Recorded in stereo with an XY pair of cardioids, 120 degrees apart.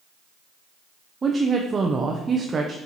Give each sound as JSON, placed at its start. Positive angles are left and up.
{"t": 1.2, "sound": "a woman speaking", "azimuth_deg": -30, "distance_m": 0.7}